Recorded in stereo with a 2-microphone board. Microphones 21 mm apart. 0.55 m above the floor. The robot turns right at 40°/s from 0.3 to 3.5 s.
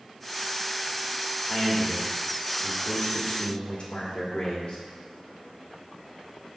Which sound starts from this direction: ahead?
A man speaking, at 1.5 s.